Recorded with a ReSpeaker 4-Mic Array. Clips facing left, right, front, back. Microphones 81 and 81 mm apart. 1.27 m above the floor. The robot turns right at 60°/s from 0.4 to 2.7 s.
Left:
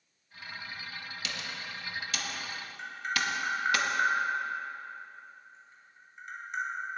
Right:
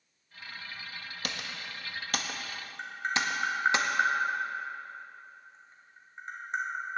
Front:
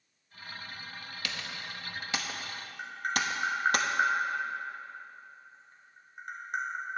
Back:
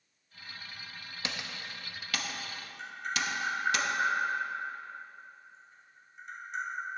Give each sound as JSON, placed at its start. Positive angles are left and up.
{"t": 1.2, "sound": "typing on a keyboard", "azimuth_deg": -115, "distance_m": 0.8}
{"t": 2.8, "sound": "tapping", "azimuth_deg": -35, "distance_m": 1.8}